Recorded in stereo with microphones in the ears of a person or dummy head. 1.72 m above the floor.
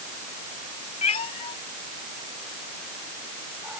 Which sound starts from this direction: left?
A cat meowing, at 1.0 s.